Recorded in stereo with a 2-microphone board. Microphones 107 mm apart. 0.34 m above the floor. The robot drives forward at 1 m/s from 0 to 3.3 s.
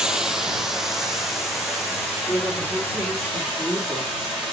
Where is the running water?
5° right (ahead or behind), 1.2 m; by 4.5 s centre (ahead or behind), 4.5 m.